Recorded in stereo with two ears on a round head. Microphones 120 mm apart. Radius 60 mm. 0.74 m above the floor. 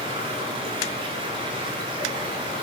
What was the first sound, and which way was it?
Running water, 35° right (ahead or behind).